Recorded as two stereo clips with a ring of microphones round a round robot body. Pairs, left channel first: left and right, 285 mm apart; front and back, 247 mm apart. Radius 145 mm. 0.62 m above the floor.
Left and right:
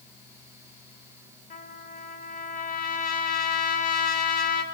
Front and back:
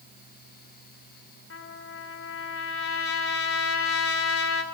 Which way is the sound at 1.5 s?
30° left.